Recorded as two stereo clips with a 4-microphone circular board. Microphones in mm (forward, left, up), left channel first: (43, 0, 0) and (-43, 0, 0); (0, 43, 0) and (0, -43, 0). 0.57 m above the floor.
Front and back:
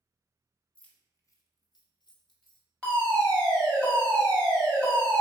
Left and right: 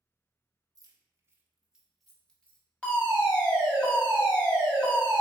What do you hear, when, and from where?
0.8 s keys jangling: 75° right, 0.7 m; by 2.6 s 15° left, 1.2 m
2.8 s a fire alarm: 40° left, 1.7 m